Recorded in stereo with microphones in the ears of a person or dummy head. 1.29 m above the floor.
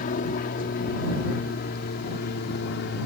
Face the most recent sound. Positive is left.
turn(degrees=55)  # may be behind; listen again after turning